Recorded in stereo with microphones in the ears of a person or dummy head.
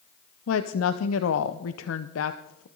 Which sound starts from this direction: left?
A woman speaking, at 0.5 s.